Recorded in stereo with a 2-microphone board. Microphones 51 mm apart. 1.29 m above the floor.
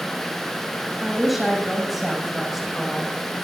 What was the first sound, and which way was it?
A woman speaking, centre (ahead or behind).